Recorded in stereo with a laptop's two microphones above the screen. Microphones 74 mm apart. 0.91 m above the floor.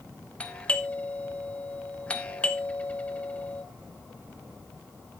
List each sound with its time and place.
0.4 s a doorbell: 15° left (ahead or behind), 1.1 m